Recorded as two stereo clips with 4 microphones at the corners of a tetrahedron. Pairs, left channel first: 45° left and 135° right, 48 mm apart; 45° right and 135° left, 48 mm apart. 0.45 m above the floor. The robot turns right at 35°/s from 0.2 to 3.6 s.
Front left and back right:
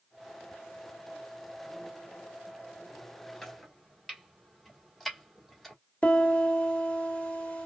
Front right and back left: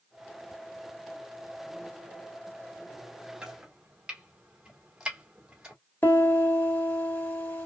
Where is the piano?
10° right, 1.5 m.